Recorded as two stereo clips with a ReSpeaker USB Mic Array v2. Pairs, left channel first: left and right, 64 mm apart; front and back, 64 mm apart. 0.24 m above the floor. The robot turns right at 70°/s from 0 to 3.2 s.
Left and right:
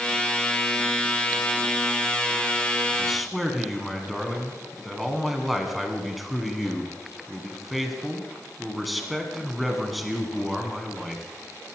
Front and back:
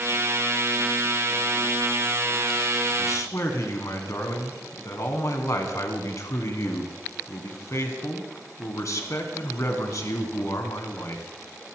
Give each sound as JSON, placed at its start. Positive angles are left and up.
{"t": 3.0, "sound": "a man speaking", "azimuth_deg": -15, "distance_m": 2.5}